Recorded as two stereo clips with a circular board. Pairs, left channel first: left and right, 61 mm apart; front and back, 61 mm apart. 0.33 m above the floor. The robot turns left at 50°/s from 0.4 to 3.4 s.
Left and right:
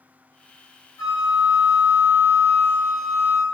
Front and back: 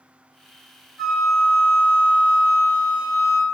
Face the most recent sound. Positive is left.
turn(degrees=-35)